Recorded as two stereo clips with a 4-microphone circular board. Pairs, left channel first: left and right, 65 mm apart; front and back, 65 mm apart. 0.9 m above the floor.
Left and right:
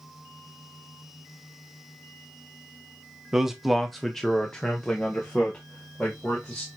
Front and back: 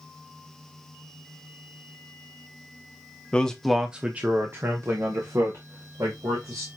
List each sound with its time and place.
3.3 s a man speaking: 25° right, 0.8 m; by 6.7 s 160° left, 2.5 m